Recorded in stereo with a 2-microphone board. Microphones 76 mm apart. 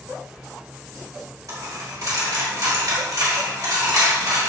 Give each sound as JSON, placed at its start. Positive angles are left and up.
{"t": 1.5, "sound": "a dropped coin", "side_deg": -55, "distance_m": 1.8}